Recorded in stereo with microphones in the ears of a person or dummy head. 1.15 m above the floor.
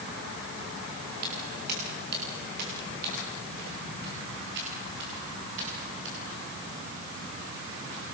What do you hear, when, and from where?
1.2 s footsteps: 55° right (ahead or behind), 9.5 m; by 6.5 s 70° right (ahead or behind), 11.5 m